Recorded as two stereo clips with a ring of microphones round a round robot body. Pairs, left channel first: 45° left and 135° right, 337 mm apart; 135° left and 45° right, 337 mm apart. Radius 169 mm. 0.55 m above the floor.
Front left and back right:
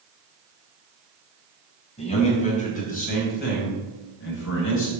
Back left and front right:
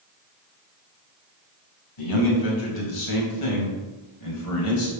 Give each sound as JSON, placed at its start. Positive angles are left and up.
{"t": 2.0, "sound": "a man speaking", "azimuth_deg": 115, "distance_m": 4.0}